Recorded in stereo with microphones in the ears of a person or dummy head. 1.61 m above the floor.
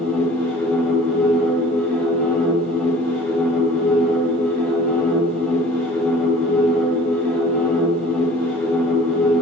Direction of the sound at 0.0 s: 10° left (ahead or behind).